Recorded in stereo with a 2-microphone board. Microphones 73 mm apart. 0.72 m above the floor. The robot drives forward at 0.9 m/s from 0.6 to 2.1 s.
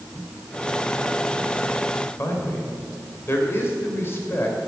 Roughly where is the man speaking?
Left.